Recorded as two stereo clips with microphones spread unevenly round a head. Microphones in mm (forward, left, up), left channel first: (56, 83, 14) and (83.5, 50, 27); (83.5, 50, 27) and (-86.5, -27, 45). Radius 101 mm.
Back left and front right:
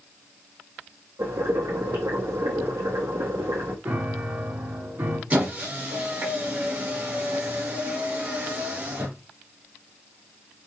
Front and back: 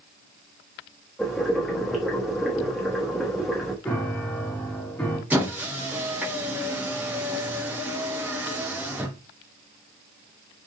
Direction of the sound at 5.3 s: 80° right.